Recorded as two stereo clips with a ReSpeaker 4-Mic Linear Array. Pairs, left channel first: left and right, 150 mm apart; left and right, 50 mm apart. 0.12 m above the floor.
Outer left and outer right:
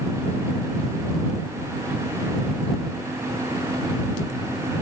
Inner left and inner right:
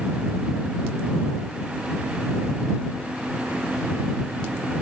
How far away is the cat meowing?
I don't hear a cat meowing.